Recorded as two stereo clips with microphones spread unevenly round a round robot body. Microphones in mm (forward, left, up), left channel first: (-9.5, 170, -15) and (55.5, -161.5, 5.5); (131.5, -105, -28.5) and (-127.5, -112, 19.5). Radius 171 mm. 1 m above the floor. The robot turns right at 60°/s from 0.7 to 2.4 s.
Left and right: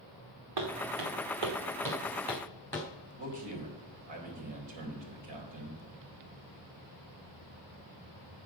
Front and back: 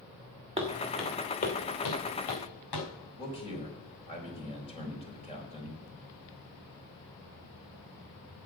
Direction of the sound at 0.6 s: 115° right.